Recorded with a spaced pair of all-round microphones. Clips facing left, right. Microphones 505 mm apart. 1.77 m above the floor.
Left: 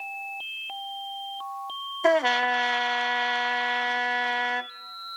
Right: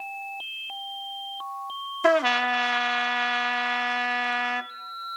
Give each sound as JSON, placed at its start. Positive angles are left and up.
{"t": 2.0, "sound": "a trumpet", "side_deg": -30, "distance_m": 0.5}